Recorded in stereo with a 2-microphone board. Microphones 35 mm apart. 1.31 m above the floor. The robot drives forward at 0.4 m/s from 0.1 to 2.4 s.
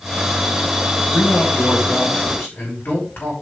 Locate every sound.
1.1 s a man speaking: 85° left, 5.5 m; by 3.4 s 80° left, 5.5 m